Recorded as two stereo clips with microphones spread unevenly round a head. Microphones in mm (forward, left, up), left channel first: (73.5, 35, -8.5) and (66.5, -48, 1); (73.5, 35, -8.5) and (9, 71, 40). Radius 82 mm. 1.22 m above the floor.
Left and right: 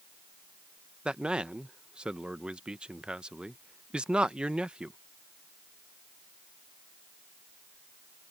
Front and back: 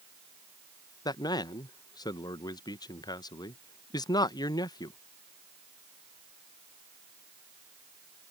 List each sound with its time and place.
1.1 s a man speaking: 15° right